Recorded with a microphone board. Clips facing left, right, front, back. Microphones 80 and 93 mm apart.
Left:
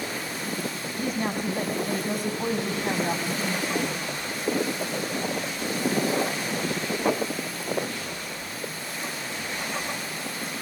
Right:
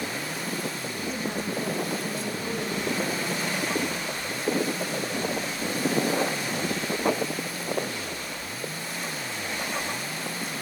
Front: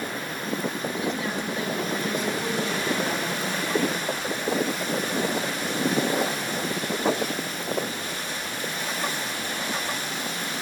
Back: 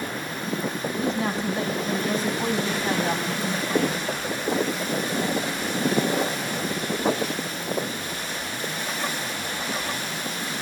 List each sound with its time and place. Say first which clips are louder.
1.0 s a woman speaking: left 5 dB, back 5 dB; 125° left, 6 m; by 4.2 s 120° left, 7.5 m